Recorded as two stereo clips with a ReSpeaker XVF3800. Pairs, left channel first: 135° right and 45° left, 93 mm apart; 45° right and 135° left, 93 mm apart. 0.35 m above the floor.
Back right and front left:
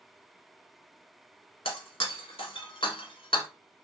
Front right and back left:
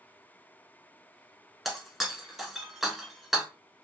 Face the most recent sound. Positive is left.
turn(degrees=-135)